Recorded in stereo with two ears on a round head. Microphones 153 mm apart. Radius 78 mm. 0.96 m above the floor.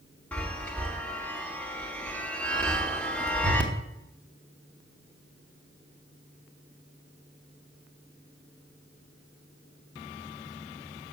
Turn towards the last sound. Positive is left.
turn(degrees=10)  # may be behind; listen again after turning